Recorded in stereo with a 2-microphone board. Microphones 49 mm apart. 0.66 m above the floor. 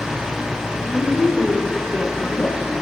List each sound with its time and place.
0.8 s a woman speaking: 30° left (ahead or behind), 1.8 m